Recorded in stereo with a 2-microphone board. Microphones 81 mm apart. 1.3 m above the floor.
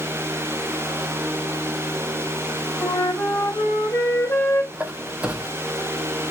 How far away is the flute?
About 1.1 m.